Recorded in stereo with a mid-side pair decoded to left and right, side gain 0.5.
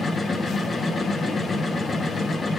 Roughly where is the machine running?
Ahead left.